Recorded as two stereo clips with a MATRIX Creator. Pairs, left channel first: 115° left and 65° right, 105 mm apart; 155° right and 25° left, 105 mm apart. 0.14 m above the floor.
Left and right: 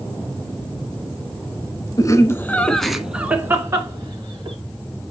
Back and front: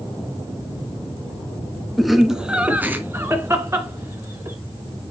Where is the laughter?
110° left, 1.2 m; by 4.6 s 30° right, 1.8 m.